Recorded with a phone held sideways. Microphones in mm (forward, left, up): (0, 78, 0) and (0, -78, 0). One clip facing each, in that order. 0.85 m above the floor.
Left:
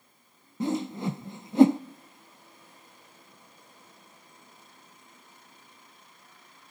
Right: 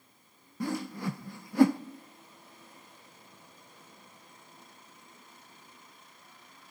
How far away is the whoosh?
About 0.5 m.